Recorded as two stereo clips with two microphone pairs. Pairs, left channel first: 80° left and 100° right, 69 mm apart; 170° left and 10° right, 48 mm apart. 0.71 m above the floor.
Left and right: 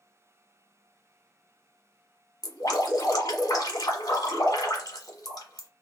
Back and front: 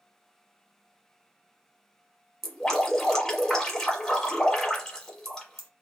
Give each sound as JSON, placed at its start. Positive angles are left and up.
{"t": 2.4, "sound": "dripping", "azimuth_deg": 90, "distance_m": 1.3}